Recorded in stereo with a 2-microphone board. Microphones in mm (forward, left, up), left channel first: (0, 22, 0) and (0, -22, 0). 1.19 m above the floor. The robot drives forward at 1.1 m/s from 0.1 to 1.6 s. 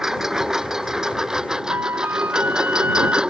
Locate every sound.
0.0 s a lawn mower: 10° right (ahead or behind); by 3.3 s 20° right (ahead or behind)
1.7 s a flute: 65° right (ahead or behind)